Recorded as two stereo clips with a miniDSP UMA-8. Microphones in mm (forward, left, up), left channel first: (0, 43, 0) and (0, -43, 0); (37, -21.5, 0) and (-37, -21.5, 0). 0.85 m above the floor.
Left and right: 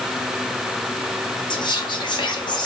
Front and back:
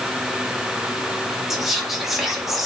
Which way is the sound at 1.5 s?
95° left.